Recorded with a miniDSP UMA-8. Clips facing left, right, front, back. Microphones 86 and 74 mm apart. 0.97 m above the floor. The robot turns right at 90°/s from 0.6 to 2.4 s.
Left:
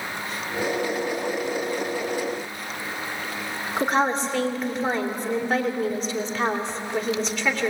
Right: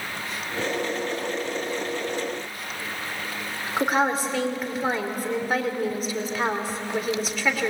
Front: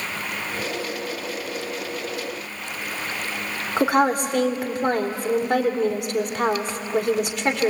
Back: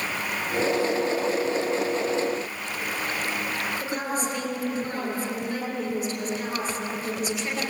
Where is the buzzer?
No buzzer in this recording.